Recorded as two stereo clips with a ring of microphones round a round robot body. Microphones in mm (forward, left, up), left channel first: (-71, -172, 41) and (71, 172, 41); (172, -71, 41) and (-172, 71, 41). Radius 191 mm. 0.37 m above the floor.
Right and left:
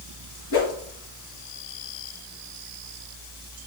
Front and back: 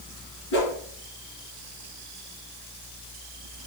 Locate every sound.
0.5 s a whoosh: 70° right, 4.5 m